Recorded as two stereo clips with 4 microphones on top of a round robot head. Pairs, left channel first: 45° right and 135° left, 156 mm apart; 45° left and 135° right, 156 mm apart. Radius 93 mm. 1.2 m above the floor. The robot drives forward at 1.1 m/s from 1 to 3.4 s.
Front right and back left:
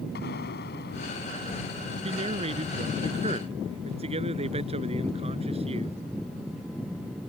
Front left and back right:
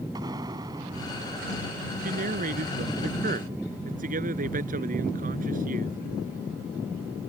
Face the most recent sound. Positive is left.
turn(degrees=-170)